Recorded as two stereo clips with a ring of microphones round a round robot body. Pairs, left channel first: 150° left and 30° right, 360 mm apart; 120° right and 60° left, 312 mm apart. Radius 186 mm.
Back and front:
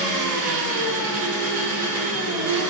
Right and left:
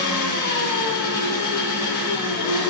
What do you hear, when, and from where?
0.0 s an engine running: 75° right, 0.8 m